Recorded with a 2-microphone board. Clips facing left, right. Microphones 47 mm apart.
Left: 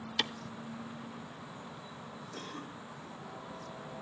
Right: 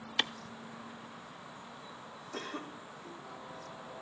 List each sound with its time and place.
0.2 s a clap: 20° right (ahead or behind), 1.0 m
2.3 s a cough: 75° right (ahead or behind), 2.5 m